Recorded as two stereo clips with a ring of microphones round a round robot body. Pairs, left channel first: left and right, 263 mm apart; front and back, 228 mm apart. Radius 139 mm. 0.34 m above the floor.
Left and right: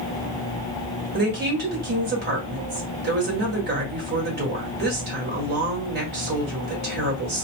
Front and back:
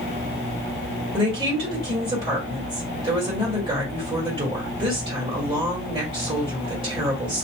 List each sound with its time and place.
1.1 s a woman speaking: 120° right, 1.9 m